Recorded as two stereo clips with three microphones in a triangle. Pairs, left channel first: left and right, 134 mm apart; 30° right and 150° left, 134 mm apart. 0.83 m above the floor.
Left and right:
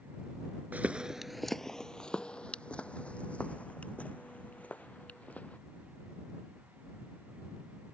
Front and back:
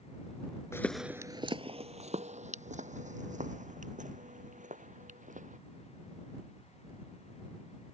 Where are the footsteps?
35° right; by 5.6 s 170° left.